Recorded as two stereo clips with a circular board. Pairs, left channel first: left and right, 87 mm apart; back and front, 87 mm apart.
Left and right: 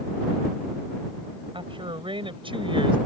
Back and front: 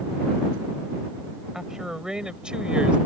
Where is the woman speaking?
85° right; by 3.0 s 80° right.